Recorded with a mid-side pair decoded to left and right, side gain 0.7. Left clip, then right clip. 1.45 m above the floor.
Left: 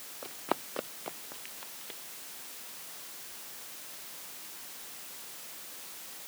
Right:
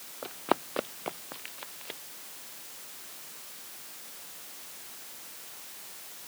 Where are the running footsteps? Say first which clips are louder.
Right 5 dB; 20° right; by 2.0 s 30° right.